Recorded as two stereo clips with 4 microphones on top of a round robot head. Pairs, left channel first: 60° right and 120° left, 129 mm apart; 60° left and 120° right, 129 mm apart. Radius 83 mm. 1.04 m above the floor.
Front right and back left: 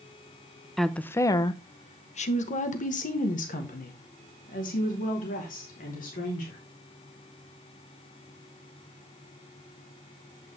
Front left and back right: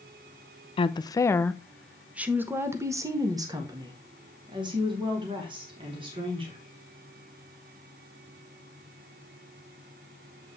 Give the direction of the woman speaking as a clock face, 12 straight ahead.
11 o'clock.